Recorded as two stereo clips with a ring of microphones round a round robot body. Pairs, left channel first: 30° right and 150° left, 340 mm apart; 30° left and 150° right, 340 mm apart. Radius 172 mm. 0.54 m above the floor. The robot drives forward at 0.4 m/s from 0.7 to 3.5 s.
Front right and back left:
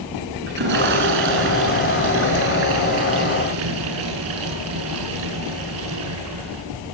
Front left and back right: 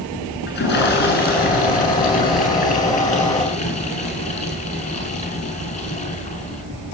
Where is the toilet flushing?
90° left, 7.5 m; by 6.6 s 100° left, 7.5 m.